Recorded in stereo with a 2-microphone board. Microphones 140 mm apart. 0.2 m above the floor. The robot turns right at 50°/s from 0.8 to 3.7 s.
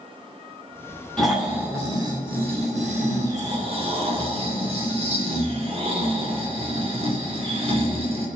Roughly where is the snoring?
Behind.